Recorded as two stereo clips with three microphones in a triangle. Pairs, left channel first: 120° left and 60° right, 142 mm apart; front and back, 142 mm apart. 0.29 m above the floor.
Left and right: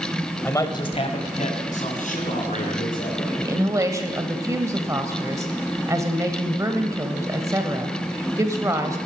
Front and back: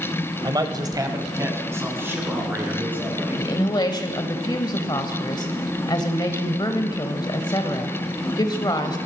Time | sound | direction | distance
0.4 | a man speaking | straight behind | 1.2 m
3.4 | a woman speaking | 15° right | 1.1 m